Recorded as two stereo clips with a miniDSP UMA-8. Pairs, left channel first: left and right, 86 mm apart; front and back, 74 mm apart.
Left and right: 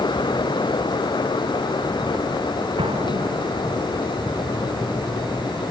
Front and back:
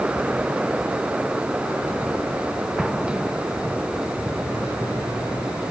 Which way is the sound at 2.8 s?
100° right.